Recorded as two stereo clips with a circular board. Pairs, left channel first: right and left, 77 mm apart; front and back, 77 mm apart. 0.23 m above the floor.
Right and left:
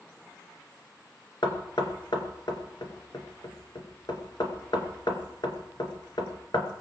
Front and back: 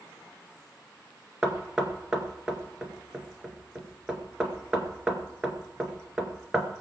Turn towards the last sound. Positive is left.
turn(degrees=-100)